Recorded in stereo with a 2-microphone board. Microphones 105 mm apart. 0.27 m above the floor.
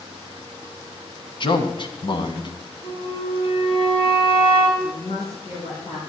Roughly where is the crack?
No crack in this recording.